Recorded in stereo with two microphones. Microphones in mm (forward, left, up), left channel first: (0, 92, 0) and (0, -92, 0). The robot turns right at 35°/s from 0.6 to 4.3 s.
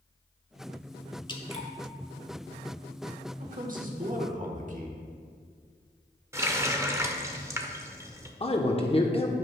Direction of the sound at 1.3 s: 25° left (ahead or behind).